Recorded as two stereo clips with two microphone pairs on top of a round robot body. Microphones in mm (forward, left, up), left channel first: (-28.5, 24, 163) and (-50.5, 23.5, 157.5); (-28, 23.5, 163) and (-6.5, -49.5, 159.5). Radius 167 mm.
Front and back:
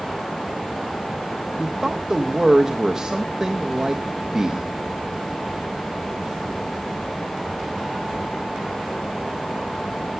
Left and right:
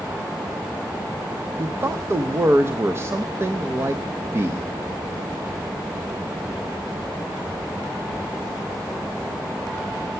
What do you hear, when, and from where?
1.6 s a man speaking: 130° right, 1.0 m